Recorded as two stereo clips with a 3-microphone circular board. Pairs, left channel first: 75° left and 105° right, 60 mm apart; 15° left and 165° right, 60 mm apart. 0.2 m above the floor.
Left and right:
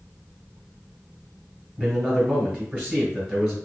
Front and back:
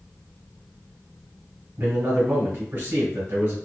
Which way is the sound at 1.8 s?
155° right.